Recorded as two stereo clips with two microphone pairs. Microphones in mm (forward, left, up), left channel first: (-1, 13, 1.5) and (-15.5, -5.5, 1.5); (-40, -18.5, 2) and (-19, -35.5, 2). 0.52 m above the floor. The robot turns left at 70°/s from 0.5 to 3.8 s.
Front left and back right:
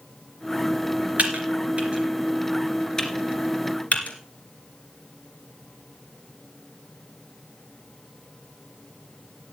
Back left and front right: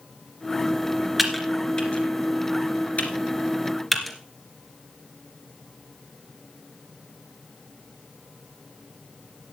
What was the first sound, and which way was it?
Typing on a keyboard, 120° right.